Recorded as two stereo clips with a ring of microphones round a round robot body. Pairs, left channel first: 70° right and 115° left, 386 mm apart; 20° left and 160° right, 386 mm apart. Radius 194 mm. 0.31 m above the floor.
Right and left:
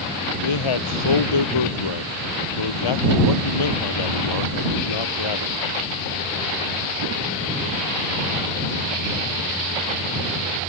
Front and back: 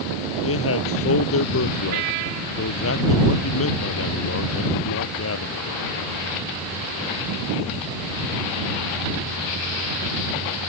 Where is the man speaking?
35° right.